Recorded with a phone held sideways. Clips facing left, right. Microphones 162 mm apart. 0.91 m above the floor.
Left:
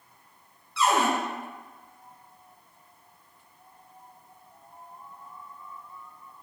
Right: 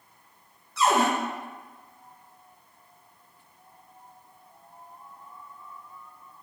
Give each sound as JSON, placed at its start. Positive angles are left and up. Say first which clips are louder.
{"t": 0.8, "sound": "a cupboard door", "louder": "right 1 dB", "side_deg": -45, "distance_m": 0.8}